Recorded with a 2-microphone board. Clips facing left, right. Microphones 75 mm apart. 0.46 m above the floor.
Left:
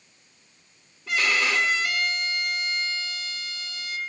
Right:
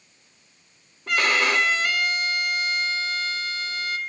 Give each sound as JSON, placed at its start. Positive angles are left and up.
{"t": 1.1, "sound": "a violin", "side_deg": -45, "distance_m": 0.6}